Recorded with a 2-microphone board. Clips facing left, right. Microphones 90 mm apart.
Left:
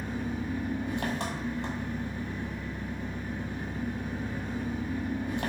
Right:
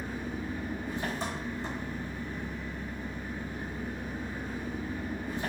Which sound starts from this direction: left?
An engine running, at 0.0 s.